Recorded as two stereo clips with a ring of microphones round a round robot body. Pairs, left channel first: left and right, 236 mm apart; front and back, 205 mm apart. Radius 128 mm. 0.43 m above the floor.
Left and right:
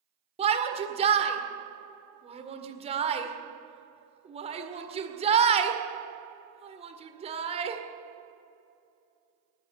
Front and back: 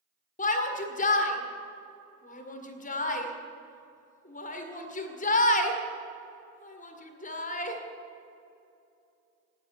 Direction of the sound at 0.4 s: 35° right.